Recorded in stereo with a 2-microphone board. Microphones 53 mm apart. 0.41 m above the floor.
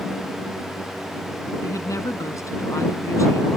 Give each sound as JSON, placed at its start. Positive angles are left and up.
{"t": 1.6, "sound": "a woman speaking", "side_deg": 75}